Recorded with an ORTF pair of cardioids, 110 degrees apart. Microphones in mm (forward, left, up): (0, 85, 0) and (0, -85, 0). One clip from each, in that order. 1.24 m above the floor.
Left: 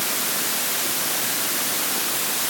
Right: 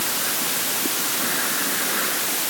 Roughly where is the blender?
No blender in this recording.